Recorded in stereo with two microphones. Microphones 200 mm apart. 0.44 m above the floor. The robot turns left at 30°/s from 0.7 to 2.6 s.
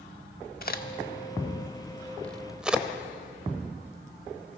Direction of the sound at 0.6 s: 50° left (ahead or behind).